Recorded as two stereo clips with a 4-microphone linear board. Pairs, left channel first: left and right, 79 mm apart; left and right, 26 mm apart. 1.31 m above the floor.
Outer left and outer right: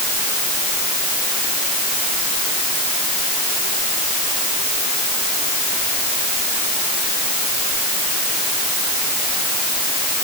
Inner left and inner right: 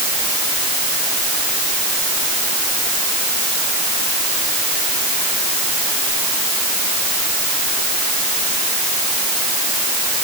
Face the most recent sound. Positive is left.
No sound to turn to.